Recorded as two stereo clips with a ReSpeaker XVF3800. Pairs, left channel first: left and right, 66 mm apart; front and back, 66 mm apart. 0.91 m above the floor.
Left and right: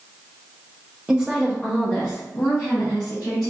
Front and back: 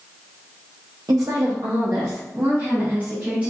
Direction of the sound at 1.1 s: 160° right.